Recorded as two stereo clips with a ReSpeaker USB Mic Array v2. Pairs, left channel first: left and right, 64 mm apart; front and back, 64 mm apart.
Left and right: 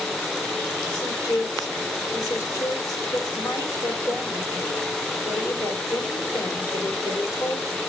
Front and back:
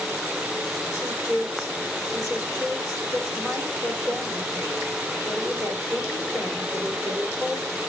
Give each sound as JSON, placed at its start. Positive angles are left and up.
{"t": 0.9, "sound": "a woman speaking", "azimuth_deg": 130, "distance_m": 3.0}